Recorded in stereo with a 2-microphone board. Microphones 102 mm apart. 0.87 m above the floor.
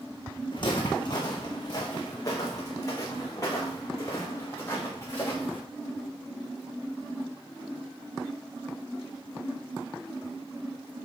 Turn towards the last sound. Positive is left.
turn(degrees=25)  # may be behind; listen again after turning